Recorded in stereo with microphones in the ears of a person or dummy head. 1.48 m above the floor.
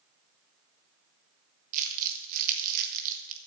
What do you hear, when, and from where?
1.7 s crumpling: 45° right (ahead or behind), 1.3 m